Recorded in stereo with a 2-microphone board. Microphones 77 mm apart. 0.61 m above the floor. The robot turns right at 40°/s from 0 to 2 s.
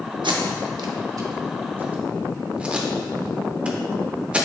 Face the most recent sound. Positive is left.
turn(degrees=-15)  # may be behind; listen again after turning